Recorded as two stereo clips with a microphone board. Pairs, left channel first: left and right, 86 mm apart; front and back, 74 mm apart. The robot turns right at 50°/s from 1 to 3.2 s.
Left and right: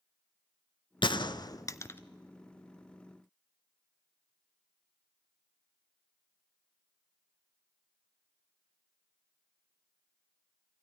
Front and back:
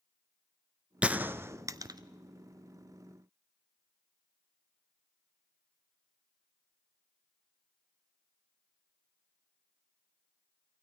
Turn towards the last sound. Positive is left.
turn(degrees=-145)